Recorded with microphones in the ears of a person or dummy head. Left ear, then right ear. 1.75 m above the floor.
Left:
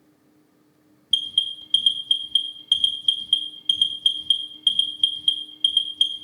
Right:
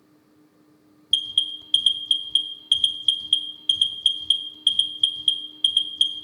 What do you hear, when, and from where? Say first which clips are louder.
1.1 s an alarm: even; 10° right (ahead or behind), 0.5 m